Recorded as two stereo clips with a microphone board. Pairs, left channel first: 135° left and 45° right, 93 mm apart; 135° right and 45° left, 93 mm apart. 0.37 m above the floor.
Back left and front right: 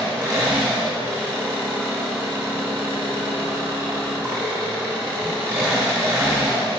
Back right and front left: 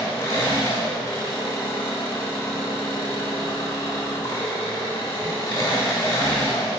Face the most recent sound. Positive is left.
turn(degrees=-95)